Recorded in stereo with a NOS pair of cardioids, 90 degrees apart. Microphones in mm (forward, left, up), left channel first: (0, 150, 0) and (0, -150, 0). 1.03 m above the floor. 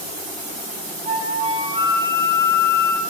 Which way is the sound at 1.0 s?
20° right.